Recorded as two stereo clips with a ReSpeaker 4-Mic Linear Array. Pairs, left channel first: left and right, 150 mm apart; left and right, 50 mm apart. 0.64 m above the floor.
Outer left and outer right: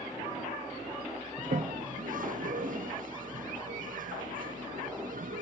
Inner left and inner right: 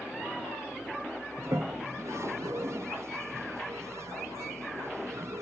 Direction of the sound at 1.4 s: 65° right (ahead or behind).